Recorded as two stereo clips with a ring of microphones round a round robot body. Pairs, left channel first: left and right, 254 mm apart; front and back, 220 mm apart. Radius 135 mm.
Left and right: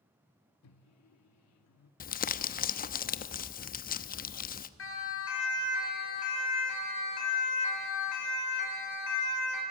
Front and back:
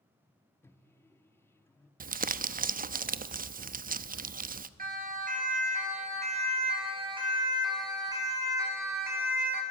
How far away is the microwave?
About 1.1 m.